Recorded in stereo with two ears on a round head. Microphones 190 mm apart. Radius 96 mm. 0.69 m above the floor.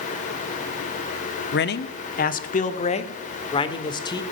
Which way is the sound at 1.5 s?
55° left (ahead or behind).